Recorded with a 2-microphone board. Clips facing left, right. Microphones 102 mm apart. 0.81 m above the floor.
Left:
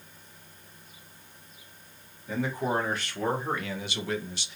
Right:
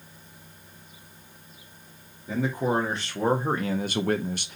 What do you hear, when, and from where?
2.3 s a man speaking: 20° right (ahead or behind), 1.4 m; by 4.5 s 50° right (ahead or behind), 0.5 m